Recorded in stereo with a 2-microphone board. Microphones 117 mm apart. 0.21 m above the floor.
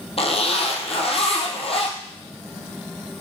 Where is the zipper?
55° left (ahead or behind), 1.3 m.